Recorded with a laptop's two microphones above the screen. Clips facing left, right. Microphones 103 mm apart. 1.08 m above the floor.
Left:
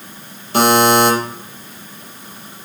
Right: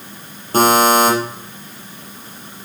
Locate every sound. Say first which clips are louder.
0.5 s a buzzer: even; 40° right (ahead or behind), 6.5 m